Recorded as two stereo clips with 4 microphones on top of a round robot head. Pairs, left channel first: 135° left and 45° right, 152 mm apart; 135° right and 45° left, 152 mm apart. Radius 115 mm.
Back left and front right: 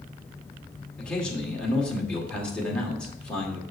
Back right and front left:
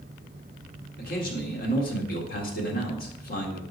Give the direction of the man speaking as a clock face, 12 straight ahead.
5 o'clock.